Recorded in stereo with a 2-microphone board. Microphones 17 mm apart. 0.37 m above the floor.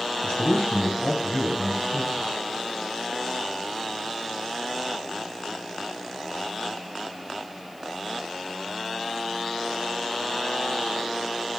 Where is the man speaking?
65° left (ahead or behind), 4.5 m; by 2.3 s 55° left (ahead or behind), 2.5 m.